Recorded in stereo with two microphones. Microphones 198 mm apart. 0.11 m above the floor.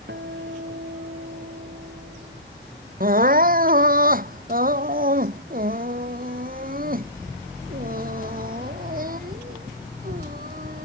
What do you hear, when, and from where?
0.1 s a guitar: 60° right (ahead or behind)
3.0 s crying: 45° right (ahead or behind)